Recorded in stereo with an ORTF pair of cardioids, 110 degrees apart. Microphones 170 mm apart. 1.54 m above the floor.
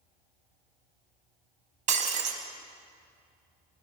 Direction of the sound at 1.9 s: 50° right.